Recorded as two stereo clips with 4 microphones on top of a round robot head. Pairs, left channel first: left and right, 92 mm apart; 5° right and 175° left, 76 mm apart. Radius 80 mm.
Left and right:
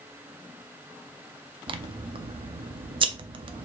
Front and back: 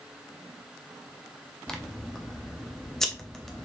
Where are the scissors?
90° right, 0.5 m.